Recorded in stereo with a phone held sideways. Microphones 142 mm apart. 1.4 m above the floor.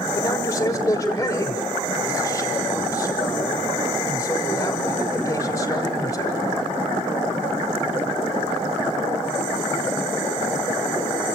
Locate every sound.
0.1 s a man speaking: 20° left (ahead or behind), 6 m